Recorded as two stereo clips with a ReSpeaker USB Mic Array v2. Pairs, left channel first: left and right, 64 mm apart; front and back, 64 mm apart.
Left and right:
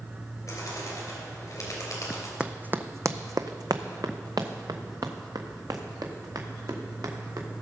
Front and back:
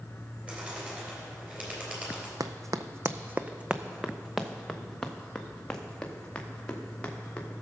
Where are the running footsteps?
165° right, 0.6 m; by 7.5 s 70° right, 2.5 m.